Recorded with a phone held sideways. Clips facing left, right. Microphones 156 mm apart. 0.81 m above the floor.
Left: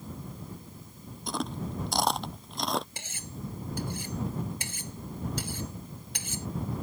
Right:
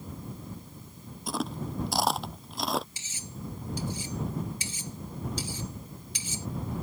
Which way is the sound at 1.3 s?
Centre (ahead or behind).